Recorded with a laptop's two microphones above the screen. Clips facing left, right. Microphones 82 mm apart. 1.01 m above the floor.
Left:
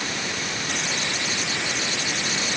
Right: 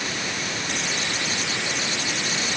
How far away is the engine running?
No engine running in this recording.